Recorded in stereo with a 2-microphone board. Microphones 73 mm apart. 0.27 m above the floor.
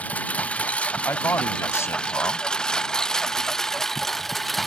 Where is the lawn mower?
20° left (ahead or behind); by 4.7 s centre (ahead or behind).